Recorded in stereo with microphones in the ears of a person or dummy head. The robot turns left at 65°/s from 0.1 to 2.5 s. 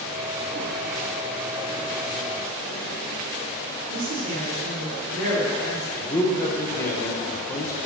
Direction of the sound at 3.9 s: 75° right (ahead or behind).